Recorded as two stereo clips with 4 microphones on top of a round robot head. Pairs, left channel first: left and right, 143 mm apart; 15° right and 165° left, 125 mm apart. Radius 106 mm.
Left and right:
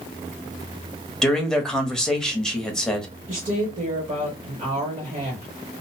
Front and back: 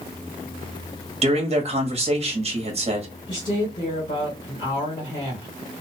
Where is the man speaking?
175° left, 1.0 m.